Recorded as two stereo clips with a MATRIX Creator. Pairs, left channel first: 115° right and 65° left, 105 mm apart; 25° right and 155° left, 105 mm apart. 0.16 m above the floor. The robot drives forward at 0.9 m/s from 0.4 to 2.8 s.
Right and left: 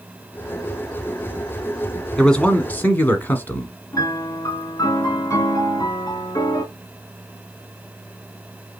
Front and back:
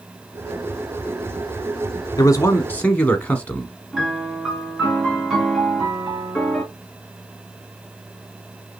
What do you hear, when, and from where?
2.2 s a man speaking: 30° right, 1.3 m; by 3.7 s 75° right, 1.1 m
3.9 s a piano: 115° right, 1.6 m